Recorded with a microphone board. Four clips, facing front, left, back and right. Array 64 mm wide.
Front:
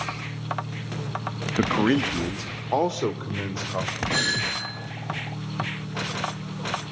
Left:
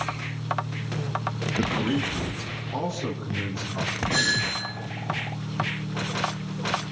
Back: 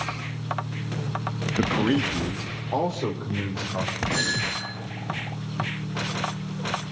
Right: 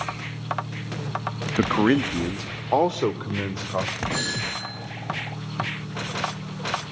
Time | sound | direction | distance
1.6 | a man speaking | 65° right | 0.5 m
4.1 | a doorbell | 10° left | 5.5 m